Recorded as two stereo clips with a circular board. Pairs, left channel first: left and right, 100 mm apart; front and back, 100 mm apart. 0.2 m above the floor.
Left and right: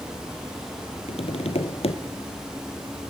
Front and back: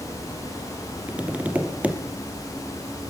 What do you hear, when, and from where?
1.1 s tapping: 105° left, 2 m